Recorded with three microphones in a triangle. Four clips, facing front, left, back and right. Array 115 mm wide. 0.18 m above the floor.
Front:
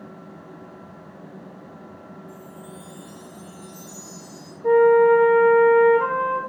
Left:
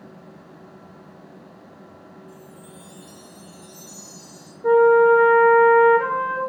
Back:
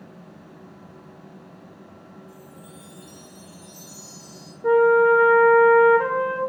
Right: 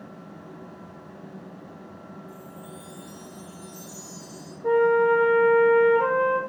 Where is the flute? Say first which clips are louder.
Left 6 dB, front 2 dB; 145° left, 2.5 m.